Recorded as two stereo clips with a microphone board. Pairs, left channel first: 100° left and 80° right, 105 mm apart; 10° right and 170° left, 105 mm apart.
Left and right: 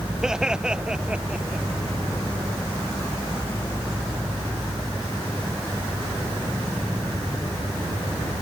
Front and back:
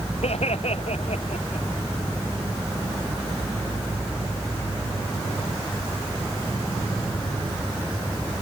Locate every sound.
0.2 s laughter: 5° left; by 1.7 s straight ahead